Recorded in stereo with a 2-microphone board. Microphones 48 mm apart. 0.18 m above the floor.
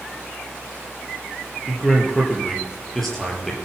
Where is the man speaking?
5° left (ahead or behind), 4.5 m.